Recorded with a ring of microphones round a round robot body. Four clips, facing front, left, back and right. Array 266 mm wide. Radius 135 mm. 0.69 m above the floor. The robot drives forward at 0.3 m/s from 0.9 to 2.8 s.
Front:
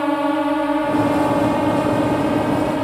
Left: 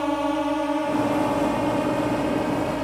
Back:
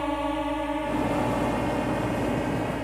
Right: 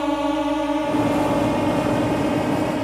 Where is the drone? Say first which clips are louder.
Right 2 dB, front 9 dB; 15° right; by 2.8 s 10° right.